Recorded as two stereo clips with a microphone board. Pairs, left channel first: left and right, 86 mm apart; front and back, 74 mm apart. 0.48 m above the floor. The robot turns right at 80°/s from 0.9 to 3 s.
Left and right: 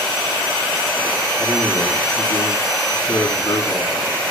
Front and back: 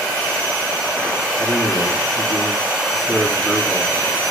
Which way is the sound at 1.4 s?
30° right.